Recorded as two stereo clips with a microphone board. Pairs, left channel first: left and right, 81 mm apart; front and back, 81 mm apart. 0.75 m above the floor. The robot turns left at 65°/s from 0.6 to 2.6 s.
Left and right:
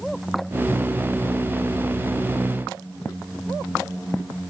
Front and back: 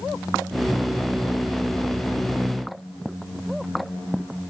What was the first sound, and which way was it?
Only background noise.